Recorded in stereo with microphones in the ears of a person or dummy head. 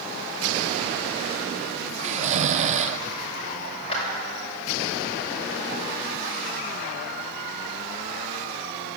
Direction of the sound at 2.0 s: 35° right (ahead or behind).